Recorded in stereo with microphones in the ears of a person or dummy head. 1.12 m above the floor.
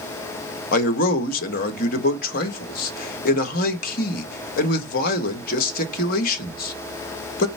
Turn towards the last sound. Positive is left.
turn(degrees=50)  # may be behind; listen again after turning